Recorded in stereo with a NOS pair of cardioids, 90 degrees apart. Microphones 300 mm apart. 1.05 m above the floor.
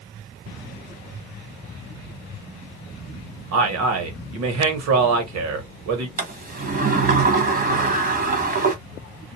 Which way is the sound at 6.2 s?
35° right.